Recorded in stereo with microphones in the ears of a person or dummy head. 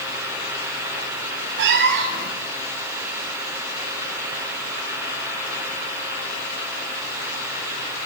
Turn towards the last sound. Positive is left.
turn(degrees=-60)  # may be behind; listen again after turning